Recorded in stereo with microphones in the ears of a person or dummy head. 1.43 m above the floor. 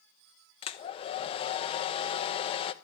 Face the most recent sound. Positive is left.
turn(degrees=30)  # may be behind; listen again after turning